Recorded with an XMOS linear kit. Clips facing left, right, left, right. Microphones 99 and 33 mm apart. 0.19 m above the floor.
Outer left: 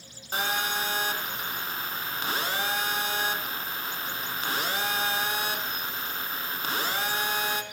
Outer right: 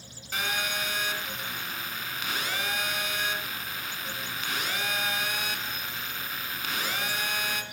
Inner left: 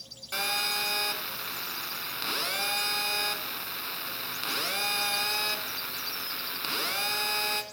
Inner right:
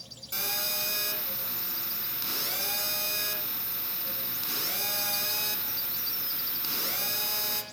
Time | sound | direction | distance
0.3 | a phone buzzing | 35° left (ahead or behind) | 0.9 m